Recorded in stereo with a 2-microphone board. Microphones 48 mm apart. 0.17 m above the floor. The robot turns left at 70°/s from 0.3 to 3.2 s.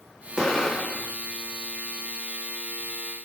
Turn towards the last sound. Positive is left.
turn(degrees=-5)